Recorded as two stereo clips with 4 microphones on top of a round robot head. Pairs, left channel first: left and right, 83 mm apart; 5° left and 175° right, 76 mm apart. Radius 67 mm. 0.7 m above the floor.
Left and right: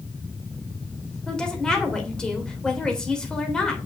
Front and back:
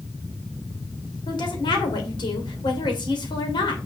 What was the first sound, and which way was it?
A woman speaking, 10° left.